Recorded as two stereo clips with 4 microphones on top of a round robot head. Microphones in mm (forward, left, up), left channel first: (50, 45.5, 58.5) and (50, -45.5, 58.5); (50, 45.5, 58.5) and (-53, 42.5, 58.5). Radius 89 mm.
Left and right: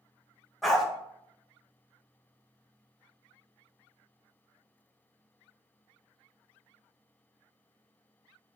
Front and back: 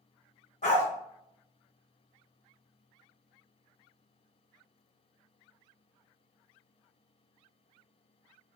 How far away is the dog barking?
About 1.0 m.